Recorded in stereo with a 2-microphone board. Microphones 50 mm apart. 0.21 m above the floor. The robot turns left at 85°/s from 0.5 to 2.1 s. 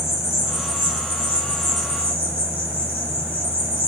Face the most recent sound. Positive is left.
turn(degrees=-35)